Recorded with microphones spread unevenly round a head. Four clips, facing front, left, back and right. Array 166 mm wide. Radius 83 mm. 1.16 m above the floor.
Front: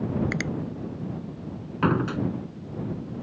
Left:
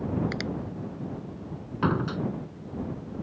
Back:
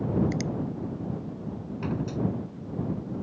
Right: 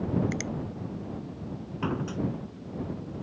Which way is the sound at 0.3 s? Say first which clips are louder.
Left 1 dB, even; 20° left.